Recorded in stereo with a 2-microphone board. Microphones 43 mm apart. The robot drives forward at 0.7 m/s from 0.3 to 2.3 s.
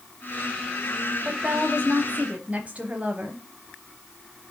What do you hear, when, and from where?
1.2 s a woman speaking: 25° right (ahead or behind), 1.2 m; by 3.5 s 30° right (ahead or behind), 1.1 m